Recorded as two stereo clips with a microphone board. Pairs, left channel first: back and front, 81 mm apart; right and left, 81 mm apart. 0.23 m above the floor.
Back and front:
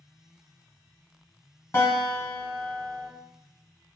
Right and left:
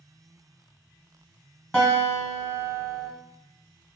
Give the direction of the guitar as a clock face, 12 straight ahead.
6 o'clock.